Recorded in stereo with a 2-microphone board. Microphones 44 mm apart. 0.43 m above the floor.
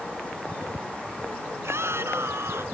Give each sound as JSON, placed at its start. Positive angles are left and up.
{"t": 1.6, "sound": "a shout", "side_deg": -75}